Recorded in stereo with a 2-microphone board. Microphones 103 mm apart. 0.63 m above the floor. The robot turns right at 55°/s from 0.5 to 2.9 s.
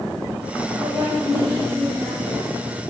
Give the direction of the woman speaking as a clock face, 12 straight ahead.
5 o'clock.